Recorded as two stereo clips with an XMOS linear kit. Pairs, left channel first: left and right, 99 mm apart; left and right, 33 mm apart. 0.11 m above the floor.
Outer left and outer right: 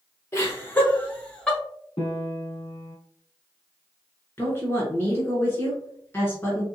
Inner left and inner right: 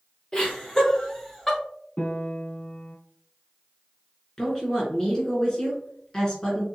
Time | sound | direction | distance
0.3 | laughter | 25° left (ahead or behind) | 1.3 m
2.0 | a piano | 65° left (ahead or behind) | 2 m
4.4 | a woman speaking | 25° left (ahead or behind) | 1.6 m